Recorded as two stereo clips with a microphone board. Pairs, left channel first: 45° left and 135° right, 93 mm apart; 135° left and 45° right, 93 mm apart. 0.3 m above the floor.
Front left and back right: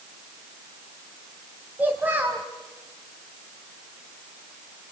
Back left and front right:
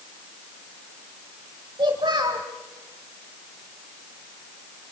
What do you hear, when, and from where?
1.8 s a child speaking: 70° right, 1.5 m